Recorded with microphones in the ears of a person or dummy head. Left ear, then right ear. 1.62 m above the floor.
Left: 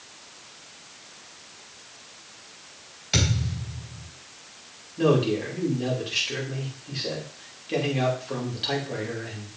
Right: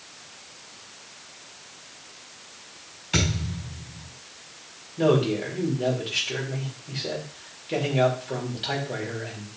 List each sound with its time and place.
3.1 s a thud: 15° left (ahead or behind), 4.5 m
5.0 s a man speaking: centre (ahead or behind), 2.5 m